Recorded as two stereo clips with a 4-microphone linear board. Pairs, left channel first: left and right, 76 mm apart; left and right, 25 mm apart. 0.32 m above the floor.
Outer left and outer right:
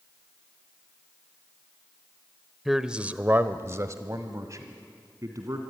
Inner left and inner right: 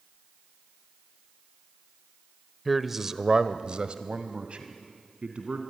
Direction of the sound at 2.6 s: Centre (ahead or behind).